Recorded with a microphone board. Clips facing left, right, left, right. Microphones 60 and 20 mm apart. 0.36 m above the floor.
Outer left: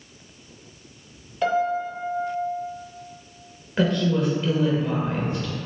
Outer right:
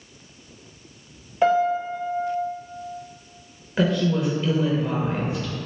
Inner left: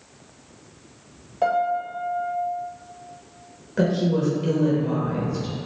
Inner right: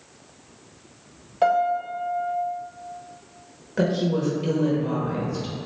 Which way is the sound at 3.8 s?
5° right (ahead or behind).